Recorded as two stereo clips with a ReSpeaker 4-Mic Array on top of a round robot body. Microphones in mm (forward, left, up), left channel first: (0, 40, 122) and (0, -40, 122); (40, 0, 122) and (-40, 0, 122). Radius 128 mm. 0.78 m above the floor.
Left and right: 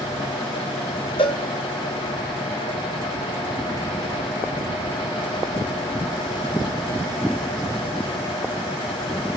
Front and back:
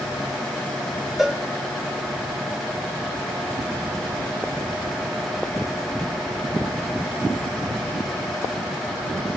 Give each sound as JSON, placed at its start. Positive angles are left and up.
{"t": 1.2, "sound": "a cowbell", "azimuth_deg": 95, "distance_m": 0.6}